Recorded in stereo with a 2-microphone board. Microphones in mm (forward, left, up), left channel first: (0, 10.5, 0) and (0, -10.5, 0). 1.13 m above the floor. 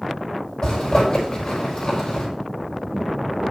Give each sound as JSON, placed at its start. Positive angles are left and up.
{"t": 0.6, "sound": "a zipper", "side_deg": 45, "distance_m": 6.0}